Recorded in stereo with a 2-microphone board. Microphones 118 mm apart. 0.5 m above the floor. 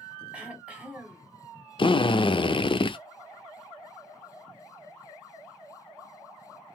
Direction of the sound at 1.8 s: 45° left (ahead or behind).